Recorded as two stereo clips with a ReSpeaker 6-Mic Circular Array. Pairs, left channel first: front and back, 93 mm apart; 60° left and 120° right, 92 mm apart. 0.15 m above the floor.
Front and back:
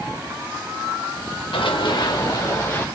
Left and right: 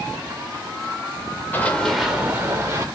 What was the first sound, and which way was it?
Running footsteps, 10° right.